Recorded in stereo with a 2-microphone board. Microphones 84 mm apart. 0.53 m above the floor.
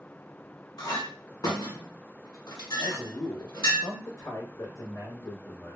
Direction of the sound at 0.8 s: 60° left (ahead or behind).